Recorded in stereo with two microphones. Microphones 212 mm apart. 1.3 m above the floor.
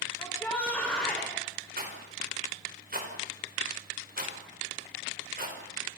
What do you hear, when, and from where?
0.2 s a shout: 10° left (ahead or behind), 5 m; by 1.3 s 5° left (ahead or behind), 5.5 m
1.8 s a rattle: 45° right (ahead or behind), 5 m